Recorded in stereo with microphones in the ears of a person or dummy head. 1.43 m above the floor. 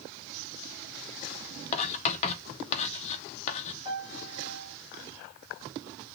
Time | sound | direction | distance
1.7 | writing | 40° left (ahead or behind) | 0.8 m
3.9 | a piano | 25° right (ahead or behind) | 3 m